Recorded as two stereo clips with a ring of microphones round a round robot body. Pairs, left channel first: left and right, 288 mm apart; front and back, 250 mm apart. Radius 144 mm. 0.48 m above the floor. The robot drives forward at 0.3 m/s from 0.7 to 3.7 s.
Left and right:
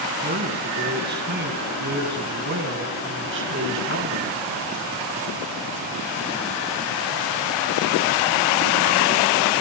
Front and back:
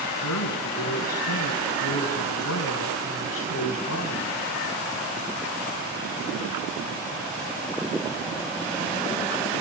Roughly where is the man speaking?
Ahead right.